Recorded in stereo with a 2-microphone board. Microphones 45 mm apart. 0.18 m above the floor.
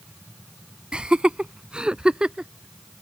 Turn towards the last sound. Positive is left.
turn(degrees=-20)  # may be behind; listen again after turning